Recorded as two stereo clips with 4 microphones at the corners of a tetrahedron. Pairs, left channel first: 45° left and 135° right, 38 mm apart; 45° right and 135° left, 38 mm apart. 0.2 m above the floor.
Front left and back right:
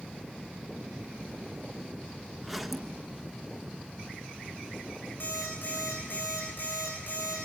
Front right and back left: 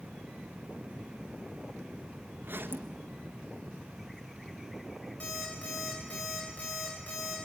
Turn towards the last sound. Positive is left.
turn(degrees=10)